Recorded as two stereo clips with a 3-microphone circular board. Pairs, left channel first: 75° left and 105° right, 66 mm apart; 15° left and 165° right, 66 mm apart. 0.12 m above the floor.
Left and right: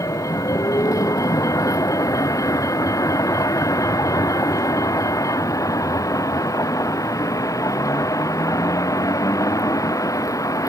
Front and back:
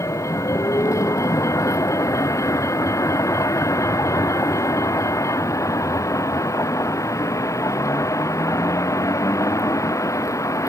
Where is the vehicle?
50° left.